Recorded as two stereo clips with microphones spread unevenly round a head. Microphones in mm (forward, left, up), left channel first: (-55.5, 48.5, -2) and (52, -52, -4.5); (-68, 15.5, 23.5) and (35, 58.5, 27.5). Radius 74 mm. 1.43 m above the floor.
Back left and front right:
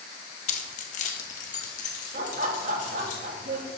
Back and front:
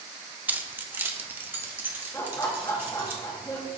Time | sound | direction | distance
0.5 | keys jangling | 95° left | 0.9 m
2.1 | laughter | 85° right | 1.9 m